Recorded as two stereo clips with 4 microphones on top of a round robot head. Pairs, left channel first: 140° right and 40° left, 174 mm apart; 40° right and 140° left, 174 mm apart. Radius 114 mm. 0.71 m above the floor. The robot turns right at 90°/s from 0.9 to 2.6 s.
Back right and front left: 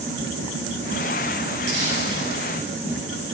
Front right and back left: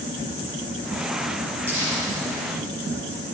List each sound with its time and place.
1.7 s crumpling: 60° left, 5 m; by 2.0 s 90° left, 5 m